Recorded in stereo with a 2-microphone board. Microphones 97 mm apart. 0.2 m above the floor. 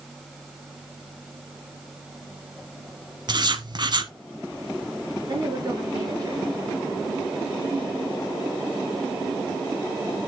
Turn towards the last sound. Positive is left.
turn(degrees=-45)  # may be behind; listen again after turning